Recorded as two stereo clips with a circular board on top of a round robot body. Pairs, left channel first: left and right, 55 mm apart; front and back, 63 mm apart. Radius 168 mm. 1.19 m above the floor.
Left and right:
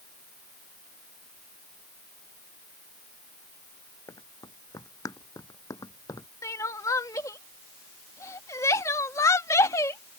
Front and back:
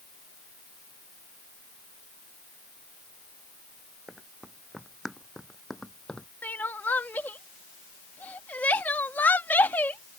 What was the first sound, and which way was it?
Running footsteps, 100° left.